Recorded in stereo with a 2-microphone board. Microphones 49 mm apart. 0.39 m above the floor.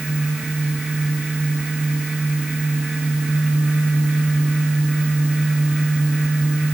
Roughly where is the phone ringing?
No phone ringing in this recording.